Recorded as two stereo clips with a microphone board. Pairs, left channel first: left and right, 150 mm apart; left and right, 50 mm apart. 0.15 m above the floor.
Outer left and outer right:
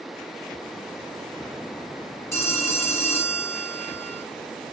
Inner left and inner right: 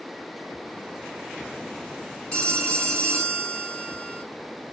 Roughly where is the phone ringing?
Centre.